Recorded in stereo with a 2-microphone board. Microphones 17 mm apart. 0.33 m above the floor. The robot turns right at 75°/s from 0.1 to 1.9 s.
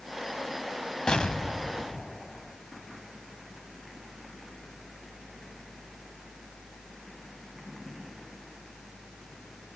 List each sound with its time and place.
1.1 s an explosion: 65° left, 1.2 m; by 2.6 s 125° left, 1.2 m